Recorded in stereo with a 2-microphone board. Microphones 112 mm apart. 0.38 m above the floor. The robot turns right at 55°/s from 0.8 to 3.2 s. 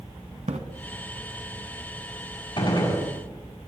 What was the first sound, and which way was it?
A splash, 80° right.